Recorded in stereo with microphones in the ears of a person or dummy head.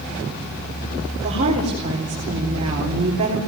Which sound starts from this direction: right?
A woman speaking, at 1.2 s.